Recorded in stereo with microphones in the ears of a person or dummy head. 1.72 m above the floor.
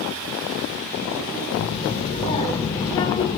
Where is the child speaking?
40° left (ahead or behind), 3.5 m; by 3.4 s 20° left (ahead or behind), 3 m.